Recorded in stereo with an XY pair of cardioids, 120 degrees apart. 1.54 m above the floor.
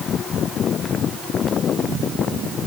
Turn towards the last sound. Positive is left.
No sound to turn to.